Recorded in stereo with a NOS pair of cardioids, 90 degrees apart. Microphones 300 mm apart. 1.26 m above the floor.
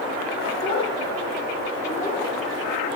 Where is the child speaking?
55° left, 2.5 m; by 2.2 s 20° left, 1.8 m.